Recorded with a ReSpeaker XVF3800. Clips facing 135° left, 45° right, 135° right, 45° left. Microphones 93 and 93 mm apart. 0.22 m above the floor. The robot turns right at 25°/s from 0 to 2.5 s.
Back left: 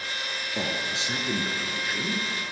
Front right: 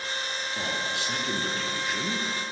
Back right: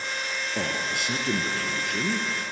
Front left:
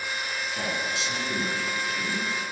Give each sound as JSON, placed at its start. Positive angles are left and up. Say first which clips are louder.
{"t": 0.6, "sound": "a man speaking", "louder": "back left 1 dB, back right 1 dB", "azimuth_deg": -170, "distance_m": 3.0}